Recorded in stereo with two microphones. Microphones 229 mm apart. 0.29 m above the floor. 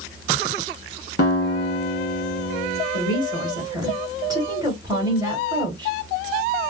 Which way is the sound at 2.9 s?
15° right (ahead or behind).